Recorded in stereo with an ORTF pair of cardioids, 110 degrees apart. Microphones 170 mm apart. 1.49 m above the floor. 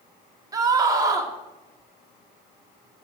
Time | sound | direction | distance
0.5 | a scream | 20° right | 2.0 m